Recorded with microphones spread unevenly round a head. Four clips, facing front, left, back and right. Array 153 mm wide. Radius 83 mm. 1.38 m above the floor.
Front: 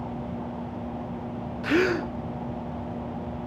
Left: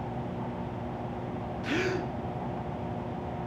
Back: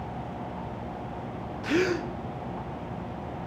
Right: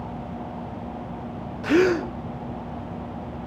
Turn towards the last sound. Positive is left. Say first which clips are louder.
# right 12 dB, front 3 dB
turn(degrees=-95)